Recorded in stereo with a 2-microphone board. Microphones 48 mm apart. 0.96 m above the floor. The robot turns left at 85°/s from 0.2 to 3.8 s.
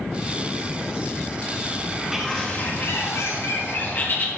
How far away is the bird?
About 1.5 m.